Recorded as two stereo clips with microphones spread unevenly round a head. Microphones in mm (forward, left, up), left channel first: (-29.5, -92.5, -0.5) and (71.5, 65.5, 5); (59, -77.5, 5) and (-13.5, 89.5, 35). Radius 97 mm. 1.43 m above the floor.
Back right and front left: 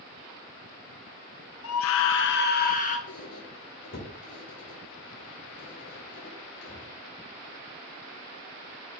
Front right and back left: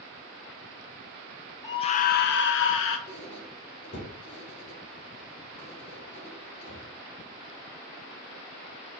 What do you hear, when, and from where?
1.6 s a scream: 135° right, 0.8 m; by 3.0 s 75° right, 1.4 m
3.1 s a squeak: 105° right, 2.5 m